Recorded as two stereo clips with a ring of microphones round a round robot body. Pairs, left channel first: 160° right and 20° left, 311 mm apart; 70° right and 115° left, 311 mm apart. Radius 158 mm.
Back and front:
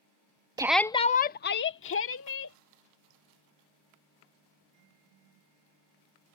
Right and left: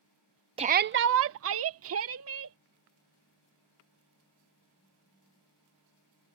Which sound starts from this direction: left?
A shout, at 0.6 s.